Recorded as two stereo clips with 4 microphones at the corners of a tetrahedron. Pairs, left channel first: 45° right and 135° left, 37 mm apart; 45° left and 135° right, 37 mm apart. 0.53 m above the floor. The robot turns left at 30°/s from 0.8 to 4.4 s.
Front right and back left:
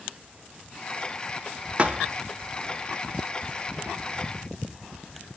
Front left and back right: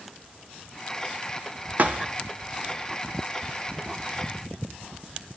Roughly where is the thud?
Behind.